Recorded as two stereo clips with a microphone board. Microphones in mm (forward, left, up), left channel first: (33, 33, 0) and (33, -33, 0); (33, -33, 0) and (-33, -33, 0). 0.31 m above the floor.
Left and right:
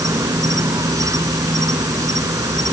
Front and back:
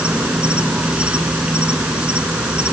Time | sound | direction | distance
0.0 | an insect | 105° right | ?